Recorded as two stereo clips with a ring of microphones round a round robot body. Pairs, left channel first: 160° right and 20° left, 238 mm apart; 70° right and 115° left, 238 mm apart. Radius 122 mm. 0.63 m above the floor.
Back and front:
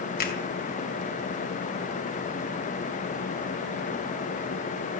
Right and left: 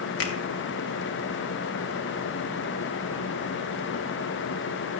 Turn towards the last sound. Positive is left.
turn(degrees=-105)